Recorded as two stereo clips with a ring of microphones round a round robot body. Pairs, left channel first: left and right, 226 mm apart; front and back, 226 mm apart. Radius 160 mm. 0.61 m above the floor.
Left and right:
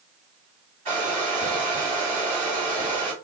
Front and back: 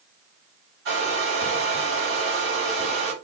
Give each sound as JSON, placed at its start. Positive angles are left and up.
{"t": 0.8, "sound": "a hair dryer", "azimuth_deg": -145, "distance_m": 1.9}